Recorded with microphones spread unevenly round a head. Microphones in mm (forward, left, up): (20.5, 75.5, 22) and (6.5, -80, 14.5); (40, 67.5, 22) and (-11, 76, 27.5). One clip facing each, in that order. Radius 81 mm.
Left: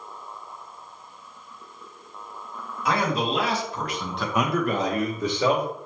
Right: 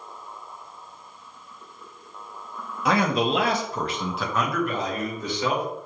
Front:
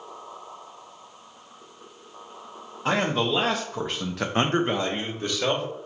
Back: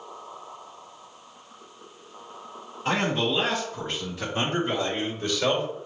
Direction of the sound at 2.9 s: 65° right.